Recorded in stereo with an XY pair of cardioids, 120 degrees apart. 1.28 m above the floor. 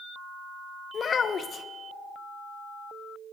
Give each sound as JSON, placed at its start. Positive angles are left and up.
{"t": 0.9, "sound": "a child speaking", "azimuth_deg": 35, "distance_m": 0.7}